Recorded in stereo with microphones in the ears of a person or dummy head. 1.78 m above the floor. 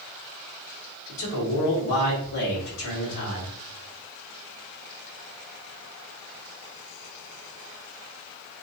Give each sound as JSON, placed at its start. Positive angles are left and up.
{"t": 1.1, "sound": "a man speaking", "side_deg": 65, "distance_m": 1.5}